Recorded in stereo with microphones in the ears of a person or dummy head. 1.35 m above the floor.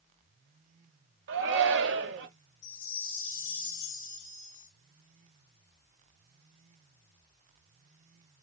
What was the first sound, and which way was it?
A shout, 65° right (ahead or behind).